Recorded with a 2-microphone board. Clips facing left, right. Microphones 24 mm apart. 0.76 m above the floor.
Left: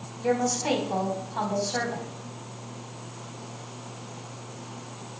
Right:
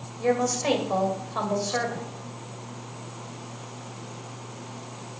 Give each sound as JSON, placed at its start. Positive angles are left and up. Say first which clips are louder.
{"t": 0.2, "sound": "a woman speaking", "louder": "right 2 dB", "side_deg": -60, "distance_m": 2.5}